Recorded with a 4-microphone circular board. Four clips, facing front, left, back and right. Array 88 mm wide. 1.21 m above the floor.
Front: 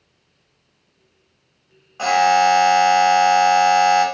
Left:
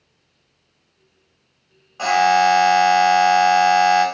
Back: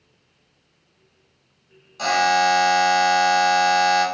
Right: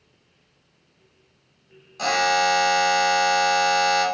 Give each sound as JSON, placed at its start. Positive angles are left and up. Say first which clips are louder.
{"t": 2.0, "sound": "a buzzer", "louder": "left 6 dB, front 4 dB", "azimuth_deg": 40, "distance_m": 0.9}